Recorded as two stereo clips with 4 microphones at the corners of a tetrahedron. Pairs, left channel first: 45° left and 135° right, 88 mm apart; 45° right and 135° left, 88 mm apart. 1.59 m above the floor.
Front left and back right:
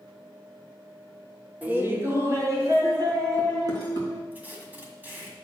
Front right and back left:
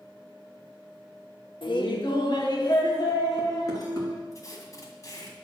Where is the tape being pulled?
75° right, 1.9 m.